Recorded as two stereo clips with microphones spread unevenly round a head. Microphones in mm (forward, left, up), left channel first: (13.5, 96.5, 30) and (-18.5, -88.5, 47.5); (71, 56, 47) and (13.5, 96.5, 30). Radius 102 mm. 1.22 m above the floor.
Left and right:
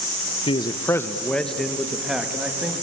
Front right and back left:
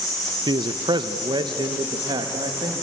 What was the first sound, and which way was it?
A man speaking, 145° left.